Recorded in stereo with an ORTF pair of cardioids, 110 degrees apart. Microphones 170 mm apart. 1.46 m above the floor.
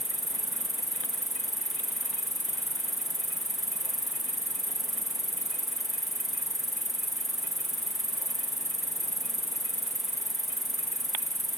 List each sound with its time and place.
0.0 s an insect: straight ahead